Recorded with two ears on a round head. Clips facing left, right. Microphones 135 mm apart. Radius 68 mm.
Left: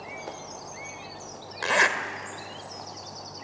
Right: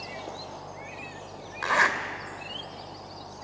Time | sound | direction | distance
1.6 | a zipper | 30° left (ahead or behind) | 1.8 m